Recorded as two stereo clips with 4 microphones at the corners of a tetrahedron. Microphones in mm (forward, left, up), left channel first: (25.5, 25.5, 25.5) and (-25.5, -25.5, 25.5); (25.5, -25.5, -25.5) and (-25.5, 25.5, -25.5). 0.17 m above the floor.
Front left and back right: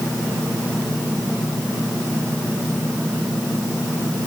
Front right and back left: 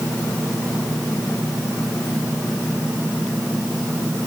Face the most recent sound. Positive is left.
No sound to turn to.